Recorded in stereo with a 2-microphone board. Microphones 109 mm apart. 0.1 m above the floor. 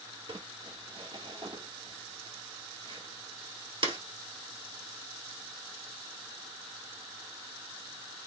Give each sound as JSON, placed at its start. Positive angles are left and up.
{"t": 0.3, "sound": "crumpling", "side_deg": -50, "distance_m": 1.5}